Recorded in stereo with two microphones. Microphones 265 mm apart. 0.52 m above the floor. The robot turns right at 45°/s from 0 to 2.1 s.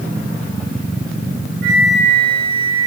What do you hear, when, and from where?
1.6 s a flute: 50° left (ahead or behind), 2 m; by 2.9 s 35° left (ahead or behind), 2 m